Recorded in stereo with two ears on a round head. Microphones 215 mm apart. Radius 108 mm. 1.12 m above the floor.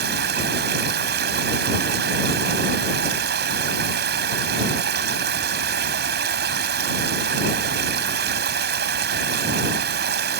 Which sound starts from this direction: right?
Running water, at 0.0 s.